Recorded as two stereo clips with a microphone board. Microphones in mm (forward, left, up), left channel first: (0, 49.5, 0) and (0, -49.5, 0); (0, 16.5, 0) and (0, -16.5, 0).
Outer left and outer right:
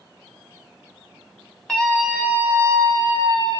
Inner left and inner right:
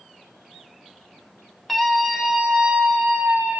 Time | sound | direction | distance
1.7 | a scream | 10° left (ahead or behind) | 1.0 m